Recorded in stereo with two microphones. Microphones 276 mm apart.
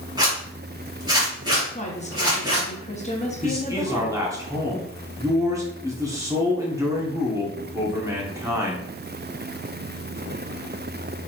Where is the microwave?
I don't hear a microwave.